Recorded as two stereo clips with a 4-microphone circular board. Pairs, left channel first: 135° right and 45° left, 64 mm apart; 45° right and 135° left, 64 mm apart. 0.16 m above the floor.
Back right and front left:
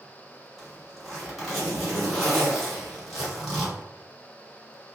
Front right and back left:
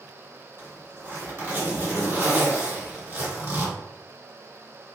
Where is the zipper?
135° left, 1.9 m.